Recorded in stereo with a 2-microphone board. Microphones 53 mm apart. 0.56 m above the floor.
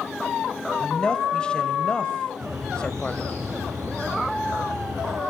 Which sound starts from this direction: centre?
A woman speaking, at 0.8 s.